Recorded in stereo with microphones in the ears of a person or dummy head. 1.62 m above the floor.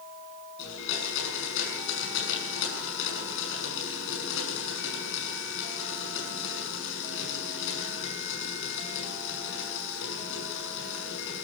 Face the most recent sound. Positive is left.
turn(degrees=65)  # may be behind; listen again after turning